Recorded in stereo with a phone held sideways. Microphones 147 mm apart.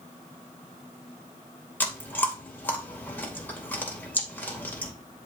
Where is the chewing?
10° left (ahead or behind), 2.5 m.